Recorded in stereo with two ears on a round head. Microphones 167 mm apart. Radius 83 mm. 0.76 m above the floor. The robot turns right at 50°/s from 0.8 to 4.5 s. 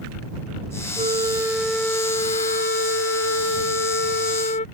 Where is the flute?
35° right; by 4.7 s 140° left.